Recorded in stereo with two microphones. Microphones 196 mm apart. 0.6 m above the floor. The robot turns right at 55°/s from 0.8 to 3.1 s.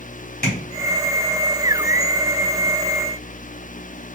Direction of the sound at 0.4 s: 55° left (ahead or behind).